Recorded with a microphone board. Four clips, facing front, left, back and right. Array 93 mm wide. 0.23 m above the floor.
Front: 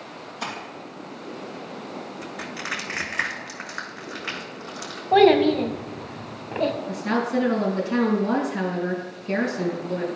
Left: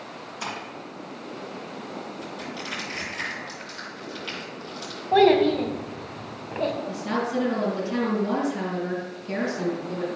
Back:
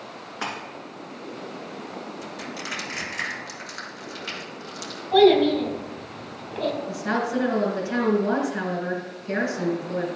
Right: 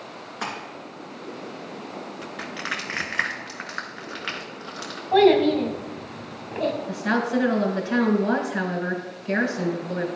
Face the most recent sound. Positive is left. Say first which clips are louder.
# right 3 dB, front 1 dB
turn(degrees=-110)